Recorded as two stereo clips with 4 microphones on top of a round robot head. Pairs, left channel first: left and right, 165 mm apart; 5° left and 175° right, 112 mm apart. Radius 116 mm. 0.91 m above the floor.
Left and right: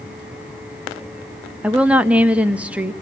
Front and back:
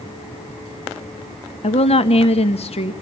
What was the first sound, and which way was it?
A woman speaking, 10° right.